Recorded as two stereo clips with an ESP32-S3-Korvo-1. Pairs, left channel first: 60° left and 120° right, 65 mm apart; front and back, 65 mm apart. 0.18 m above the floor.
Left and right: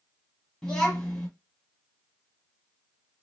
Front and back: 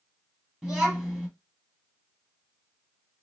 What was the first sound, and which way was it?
A child speaking, 115° left.